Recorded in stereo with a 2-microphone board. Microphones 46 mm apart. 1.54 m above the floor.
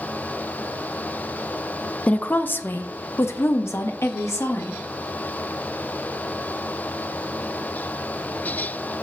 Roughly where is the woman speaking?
Left.